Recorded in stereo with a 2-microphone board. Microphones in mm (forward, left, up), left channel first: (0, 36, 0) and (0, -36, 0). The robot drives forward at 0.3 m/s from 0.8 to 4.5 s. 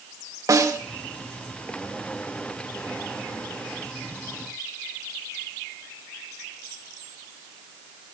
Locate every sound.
0.5 s a snare drum: 50° right (ahead or behind), 1.3 m